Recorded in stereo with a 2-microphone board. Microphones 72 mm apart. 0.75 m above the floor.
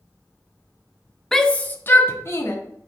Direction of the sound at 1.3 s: 5° left (ahead or behind).